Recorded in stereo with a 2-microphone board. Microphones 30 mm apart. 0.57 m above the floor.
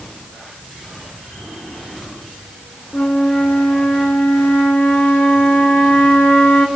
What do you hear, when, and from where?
2.9 s a flute: 70° left (ahead or behind), 2 m